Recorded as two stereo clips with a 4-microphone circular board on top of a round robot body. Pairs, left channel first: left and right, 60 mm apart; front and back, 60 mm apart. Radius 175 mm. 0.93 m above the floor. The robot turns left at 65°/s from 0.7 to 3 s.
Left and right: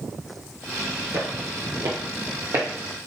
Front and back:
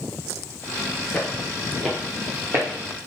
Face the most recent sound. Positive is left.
turn(degrees=-165)